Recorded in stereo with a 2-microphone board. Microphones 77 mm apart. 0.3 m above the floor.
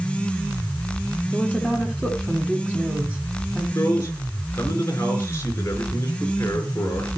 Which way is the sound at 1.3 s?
5° left (ahead or behind).